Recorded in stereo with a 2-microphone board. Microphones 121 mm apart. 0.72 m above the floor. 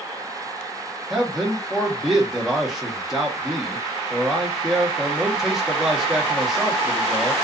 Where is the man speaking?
5° right (ahead or behind), 1.0 m.